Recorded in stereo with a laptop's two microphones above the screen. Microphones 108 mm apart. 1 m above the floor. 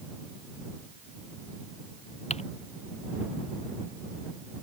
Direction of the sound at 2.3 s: 85° left.